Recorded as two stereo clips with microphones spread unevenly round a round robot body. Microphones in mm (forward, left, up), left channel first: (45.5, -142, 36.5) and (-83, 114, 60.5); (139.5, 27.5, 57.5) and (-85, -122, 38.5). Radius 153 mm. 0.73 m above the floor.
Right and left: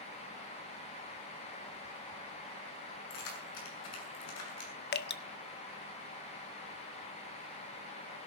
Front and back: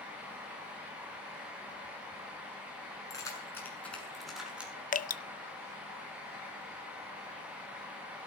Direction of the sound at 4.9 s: 25° right.